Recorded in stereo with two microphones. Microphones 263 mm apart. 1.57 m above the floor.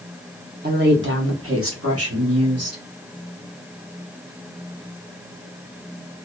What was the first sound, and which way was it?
A woman speaking, 40° right (ahead or behind).